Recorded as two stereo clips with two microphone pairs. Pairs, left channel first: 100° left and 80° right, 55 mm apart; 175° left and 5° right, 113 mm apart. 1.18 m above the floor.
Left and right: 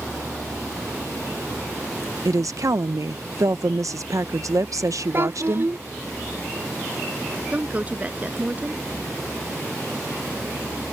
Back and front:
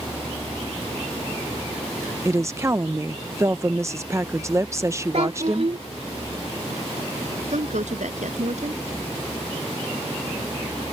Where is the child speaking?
35° right.